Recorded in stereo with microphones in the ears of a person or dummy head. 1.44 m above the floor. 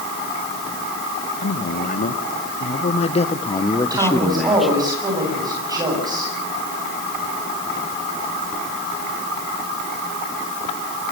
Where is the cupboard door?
No cupboard door in this recording.